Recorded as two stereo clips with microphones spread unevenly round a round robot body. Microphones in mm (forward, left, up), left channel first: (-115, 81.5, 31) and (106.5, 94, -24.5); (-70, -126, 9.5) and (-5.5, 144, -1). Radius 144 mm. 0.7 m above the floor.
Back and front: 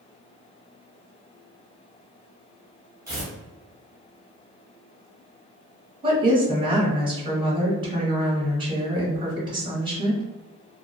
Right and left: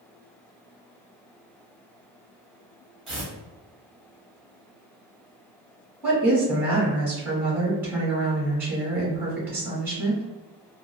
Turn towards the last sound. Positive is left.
turn(degrees=0)